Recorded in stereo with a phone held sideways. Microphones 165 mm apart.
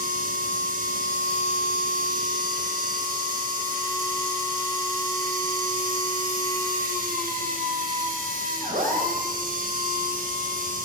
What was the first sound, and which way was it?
A machine running, 55° right (ahead or behind).